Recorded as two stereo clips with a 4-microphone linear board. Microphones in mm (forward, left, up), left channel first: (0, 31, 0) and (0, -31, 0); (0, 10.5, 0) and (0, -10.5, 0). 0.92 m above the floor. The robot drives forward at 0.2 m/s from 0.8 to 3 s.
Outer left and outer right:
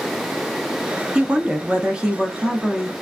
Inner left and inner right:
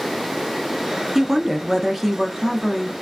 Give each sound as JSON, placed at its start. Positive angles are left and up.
{"t": 1.1, "sound": "a woman speaking", "side_deg": -15, "distance_m": 0.7}